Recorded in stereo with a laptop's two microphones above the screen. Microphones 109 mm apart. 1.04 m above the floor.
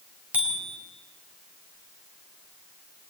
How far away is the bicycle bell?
About 4 m.